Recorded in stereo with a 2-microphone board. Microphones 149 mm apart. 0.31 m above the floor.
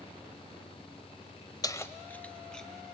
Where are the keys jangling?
25° left (ahead or behind), 0.6 m; by 2.7 s 5° left (ahead or behind), 1.8 m.